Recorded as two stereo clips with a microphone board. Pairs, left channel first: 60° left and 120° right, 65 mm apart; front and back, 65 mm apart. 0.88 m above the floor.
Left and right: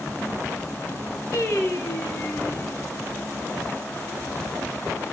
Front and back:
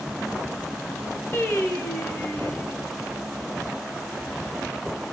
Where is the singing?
40° left, 0.9 m.